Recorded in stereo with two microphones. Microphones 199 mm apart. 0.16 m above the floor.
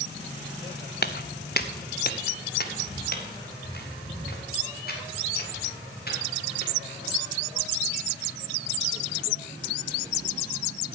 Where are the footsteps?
55° left (ahead or behind), 0.6 m; by 7.1 s 50° left (ahead or behind), 4.5 m.